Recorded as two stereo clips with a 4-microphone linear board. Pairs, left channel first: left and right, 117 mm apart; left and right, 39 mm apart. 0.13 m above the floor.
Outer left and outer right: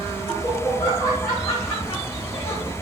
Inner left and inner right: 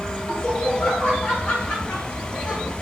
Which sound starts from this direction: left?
Laughter, at 0.3 s.